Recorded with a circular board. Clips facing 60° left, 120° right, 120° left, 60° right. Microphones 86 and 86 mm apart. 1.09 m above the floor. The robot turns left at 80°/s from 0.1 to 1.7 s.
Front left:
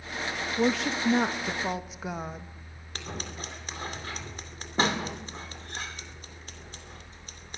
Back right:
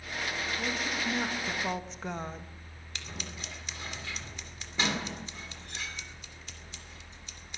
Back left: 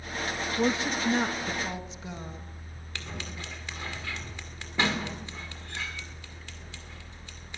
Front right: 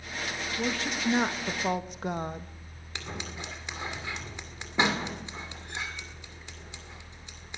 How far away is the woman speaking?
About 1.4 m.